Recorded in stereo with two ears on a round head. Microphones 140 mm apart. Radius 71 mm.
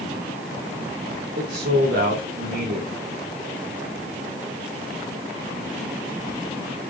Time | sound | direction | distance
1.4 | a man speaking | 80° right | 3 m